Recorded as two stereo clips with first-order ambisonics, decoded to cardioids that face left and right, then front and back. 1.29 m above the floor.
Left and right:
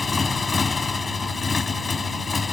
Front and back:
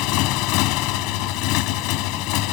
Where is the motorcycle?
15° left.